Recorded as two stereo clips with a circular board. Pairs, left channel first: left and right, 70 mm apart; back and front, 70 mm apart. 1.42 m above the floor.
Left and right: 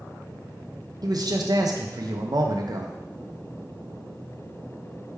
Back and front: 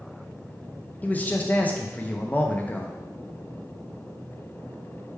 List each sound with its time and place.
1.0 s a man speaking: 115° right, 0.6 m